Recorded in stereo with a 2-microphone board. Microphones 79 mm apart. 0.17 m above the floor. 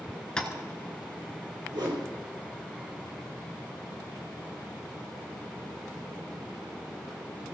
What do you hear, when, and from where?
0.4 s tapping: 10° left (ahead or behind), 1.8 m
1.7 s a whoosh: 70° right (ahead or behind), 4 m